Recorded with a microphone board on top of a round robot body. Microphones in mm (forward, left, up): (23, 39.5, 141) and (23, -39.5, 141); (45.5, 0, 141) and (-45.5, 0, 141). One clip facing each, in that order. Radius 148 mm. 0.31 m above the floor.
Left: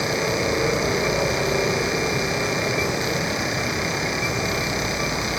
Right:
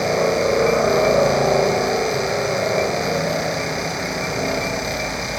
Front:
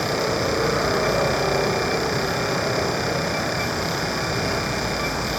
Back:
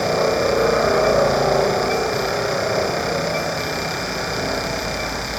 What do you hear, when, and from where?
0.0 s a helicopter: 120° right; by 5.4 s 105° right